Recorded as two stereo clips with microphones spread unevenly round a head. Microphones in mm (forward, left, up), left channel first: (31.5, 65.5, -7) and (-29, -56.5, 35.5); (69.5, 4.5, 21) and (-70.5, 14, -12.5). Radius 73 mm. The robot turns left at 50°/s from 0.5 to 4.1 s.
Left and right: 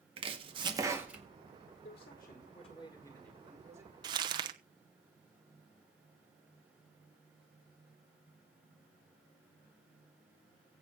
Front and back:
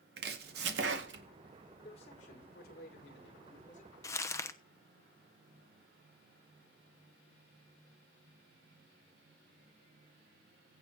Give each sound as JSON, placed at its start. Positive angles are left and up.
{"t": 0.2, "sound": "chopping", "azimuth_deg": -160, "distance_m": 2.0}
{"t": 1.8, "sound": "a man speaking", "azimuth_deg": 50, "distance_m": 5.0}
{"t": 4.0, "sound": "crumpling", "azimuth_deg": -65, "distance_m": 0.9}